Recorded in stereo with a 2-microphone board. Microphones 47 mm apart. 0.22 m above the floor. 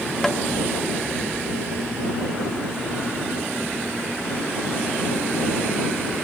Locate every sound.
0.2 s tapping: 5° left (ahead or behind)